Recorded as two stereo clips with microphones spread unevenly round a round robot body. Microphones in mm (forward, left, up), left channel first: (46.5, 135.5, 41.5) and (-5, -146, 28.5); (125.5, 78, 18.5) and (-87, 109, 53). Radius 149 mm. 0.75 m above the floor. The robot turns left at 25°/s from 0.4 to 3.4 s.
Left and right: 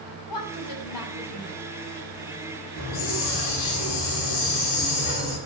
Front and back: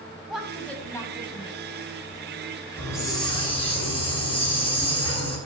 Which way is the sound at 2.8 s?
75° left.